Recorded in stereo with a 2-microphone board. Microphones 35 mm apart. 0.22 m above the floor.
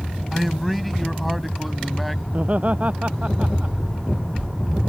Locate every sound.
0.3 s a man speaking: centre (ahead or behind)
2.3 s laughter: 45° right (ahead or behind)